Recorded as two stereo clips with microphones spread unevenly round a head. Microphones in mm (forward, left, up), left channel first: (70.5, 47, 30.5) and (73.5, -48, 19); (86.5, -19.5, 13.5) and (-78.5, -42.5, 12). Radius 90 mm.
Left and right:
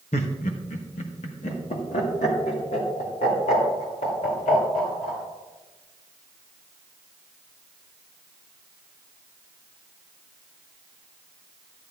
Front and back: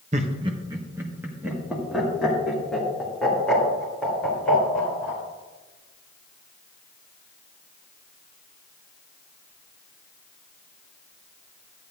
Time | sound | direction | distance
0.1 | laughter | 130° left | 0.8 m